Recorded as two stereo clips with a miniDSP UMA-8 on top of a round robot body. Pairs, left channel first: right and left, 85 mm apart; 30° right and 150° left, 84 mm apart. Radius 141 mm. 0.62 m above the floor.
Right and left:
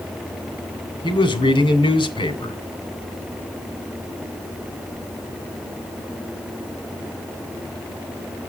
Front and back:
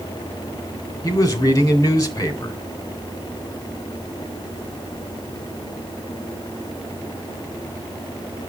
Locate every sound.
1.0 s a man speaking: 80° right, 2.5 m